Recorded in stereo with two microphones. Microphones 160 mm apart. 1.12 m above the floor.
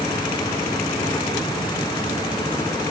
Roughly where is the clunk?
I don't hear a clunk.